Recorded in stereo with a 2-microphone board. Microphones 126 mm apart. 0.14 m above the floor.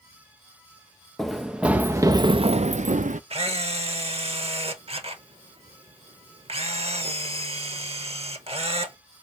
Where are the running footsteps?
Centre (ahead or behind), 0.8 m; by 3.2 s 80° right, 0.6 m.